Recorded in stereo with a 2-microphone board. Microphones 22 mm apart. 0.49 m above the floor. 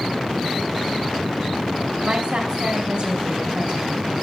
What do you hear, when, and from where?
2.0 s a woman speaking: 60° right (ahead or behind), 4 m